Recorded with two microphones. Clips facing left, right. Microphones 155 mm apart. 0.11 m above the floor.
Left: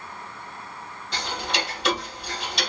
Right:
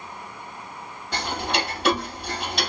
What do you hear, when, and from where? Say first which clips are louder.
1.1 s ticking: right 3 dB; 55° right (ahead or behind), 2 m